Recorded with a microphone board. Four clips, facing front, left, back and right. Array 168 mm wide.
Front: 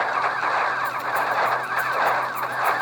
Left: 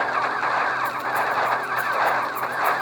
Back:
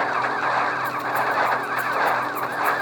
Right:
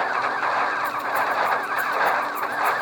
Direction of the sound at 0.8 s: 20° left.